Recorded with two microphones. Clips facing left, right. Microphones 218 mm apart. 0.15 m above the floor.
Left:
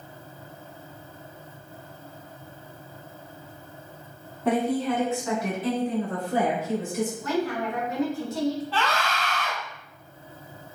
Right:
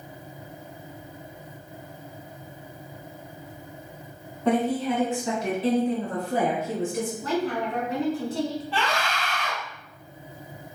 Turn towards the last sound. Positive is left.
turn(degrees=-15)  # may be behind; listen again after turning